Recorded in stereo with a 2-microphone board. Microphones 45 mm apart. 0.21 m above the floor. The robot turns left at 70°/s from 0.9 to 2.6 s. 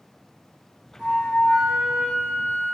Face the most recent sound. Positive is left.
turn(degrees=115)